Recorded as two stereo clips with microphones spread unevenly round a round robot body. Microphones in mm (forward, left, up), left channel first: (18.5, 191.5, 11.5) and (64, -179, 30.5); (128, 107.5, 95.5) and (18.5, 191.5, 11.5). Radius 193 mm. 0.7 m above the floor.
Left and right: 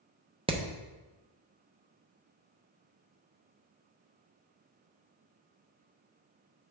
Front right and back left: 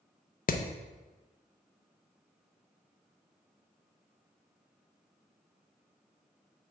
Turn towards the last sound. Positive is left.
turn(degrees=-15)